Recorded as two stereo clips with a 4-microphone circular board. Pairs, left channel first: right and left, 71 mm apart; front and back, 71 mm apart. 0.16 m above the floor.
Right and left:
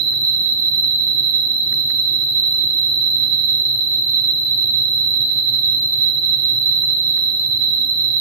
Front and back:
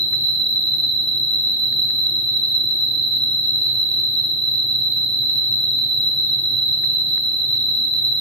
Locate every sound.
0.0 s an insect: 120° right, 3 m